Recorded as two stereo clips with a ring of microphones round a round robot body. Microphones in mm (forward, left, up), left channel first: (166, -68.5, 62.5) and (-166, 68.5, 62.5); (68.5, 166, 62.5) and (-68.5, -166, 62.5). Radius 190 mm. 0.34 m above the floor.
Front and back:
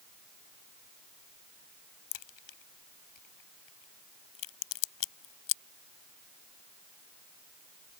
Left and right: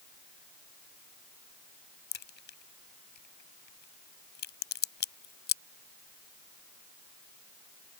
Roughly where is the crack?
Ahead.